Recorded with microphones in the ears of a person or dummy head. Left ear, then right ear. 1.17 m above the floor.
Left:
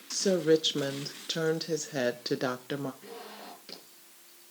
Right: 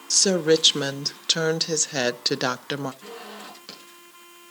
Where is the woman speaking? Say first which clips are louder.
Right 6 dB; 25° right (ahead or behind), 0.7 m.